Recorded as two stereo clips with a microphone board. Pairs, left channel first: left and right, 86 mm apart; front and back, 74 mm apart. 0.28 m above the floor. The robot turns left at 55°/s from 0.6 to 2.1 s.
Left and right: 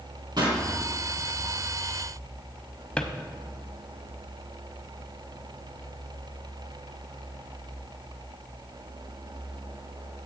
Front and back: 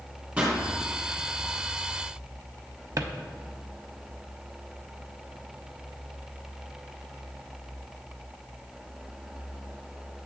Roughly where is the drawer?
Behind.